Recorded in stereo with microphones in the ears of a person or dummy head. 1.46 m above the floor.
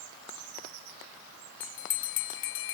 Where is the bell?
50° left (ahead or behind).